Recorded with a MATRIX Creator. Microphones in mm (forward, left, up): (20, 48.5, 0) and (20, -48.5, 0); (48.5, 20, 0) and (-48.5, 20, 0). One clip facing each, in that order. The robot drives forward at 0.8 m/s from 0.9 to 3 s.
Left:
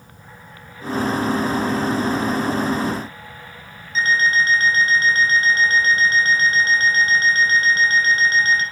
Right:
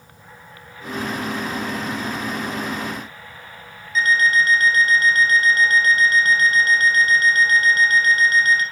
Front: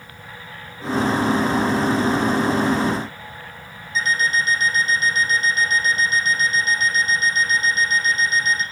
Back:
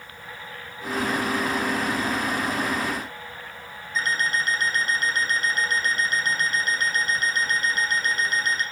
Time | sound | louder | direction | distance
4.0 | an alarm clock | right 1 dB, front 4 dB | 150° left | 2.5 m